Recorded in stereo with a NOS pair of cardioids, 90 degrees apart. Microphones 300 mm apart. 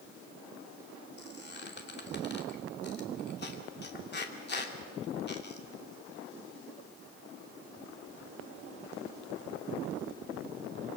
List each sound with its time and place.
1.2 s a squeak: 35° left, 2.5 m